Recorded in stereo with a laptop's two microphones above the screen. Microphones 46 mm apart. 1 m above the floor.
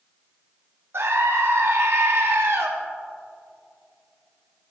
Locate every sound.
0.9 s a scream: 70° right (ahead or behind), 1.5 m